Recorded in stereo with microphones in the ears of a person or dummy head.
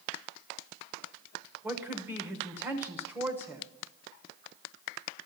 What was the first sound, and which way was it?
A woman speaking, 5° right (ahead or behind).